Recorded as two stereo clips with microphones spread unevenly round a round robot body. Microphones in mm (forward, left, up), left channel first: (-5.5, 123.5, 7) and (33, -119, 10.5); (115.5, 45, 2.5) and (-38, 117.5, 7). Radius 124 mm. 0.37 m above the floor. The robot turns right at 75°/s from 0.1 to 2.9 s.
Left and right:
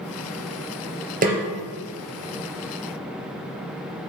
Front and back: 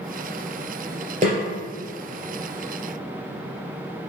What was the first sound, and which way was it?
A snare drum, 140° right.